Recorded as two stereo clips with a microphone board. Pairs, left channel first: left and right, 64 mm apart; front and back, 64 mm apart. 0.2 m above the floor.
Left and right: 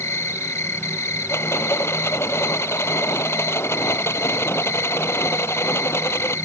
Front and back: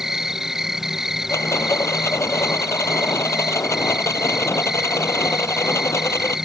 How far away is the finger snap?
No finger snap in this recording.